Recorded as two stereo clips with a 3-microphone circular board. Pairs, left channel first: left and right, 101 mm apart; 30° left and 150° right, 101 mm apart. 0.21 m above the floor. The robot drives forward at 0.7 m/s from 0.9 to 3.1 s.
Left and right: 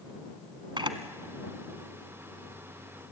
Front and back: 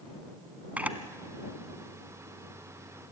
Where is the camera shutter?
80° right, 1.2 m.